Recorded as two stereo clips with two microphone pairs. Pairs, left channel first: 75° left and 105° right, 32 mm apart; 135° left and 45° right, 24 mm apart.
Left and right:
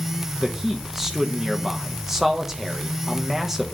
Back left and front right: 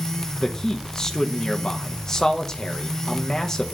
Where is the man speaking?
175° right, 0.8 m.